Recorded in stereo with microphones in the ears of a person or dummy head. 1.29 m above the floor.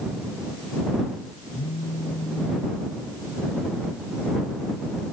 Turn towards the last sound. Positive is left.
turn(degrees=45)  # may be behind; listen again after turning